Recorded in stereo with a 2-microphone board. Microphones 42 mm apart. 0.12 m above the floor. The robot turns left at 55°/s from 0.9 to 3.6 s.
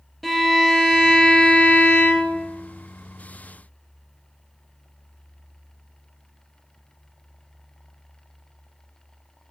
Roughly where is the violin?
Behind.